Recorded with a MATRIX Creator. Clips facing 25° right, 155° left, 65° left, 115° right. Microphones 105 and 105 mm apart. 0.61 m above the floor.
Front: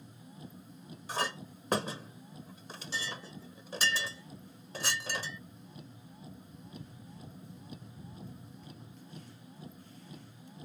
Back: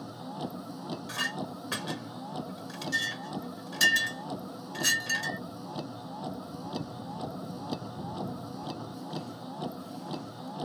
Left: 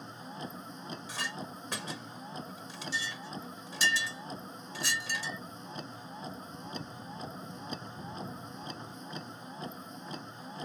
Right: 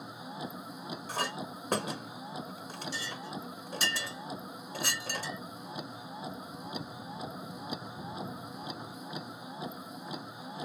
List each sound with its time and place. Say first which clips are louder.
0.0 s a vehicle: back 14 dB, right 2 dB; 165° left
1.1 s a clink: front 5 dB, right 6 dB; 75° right